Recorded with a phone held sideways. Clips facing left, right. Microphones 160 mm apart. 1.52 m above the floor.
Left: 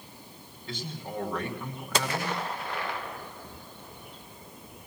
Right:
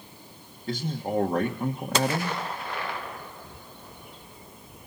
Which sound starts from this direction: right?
A man speaking, at 0.7 s.